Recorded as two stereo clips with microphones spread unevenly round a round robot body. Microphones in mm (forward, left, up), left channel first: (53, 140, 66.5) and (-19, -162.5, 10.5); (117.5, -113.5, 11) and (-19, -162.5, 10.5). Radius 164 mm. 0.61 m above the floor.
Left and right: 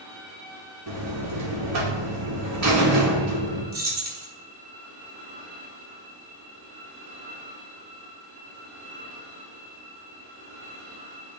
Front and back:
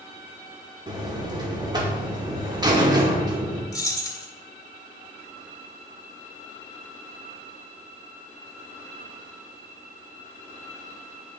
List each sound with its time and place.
0.9 s a buzzer: 105° right, 1.8 m
3.7 s keys jangling: 45° right, 1.7 m